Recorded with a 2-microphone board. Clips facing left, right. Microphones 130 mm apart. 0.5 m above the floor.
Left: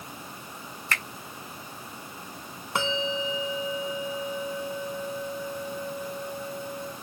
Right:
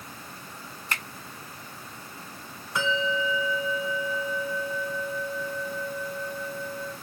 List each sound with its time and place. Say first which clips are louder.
0.9 s a finger snap: left 2 dB; 15° right (ahead or behind), 1.4 m
2.8 s a bell: right 1 dB; 75° left (ahead or behind), 1.9 m